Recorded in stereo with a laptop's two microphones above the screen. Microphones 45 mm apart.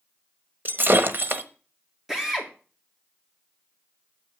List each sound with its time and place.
0.7 s breaking glass: 50° right (ahead or behind), 1.1 m
2.1 s a drill: 10° right (ahead or behind), 2.5 m